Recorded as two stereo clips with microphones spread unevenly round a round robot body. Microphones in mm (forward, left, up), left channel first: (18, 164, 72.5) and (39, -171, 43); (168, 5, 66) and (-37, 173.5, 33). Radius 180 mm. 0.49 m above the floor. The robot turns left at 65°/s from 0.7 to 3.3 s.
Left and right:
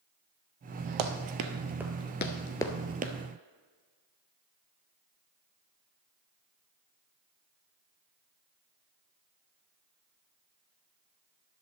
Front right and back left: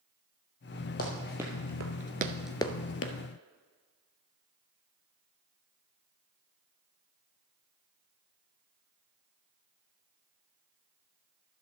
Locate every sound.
1.0 s running footsteps: 100° right, 1.0 m; by 3.1 s 30° right, 0.9 m